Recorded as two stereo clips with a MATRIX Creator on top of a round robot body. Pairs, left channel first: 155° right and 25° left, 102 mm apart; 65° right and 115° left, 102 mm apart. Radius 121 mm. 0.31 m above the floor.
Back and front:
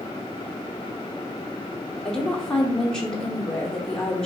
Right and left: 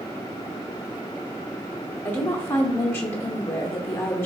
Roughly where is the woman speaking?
Right.